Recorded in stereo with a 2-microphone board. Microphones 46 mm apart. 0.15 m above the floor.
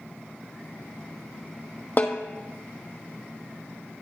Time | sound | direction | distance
2.0 | a snare drum | 40° left (ahead or behind) | 1.0 m